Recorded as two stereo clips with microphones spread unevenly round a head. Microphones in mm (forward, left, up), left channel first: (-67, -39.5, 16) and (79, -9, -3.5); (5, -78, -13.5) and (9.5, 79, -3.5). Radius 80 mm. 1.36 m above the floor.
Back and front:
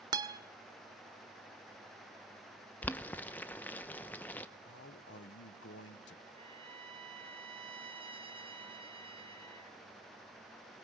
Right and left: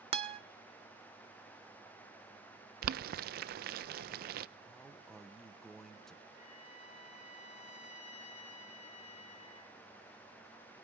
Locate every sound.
0.1 s a guitar: 75° left, 1.2 m
2.8 s boiling: 115° left, 0.7 m
4.7 s a man speaking: 175° right, 1.2 m
6.4 s a trumpet: 45° right, 3 m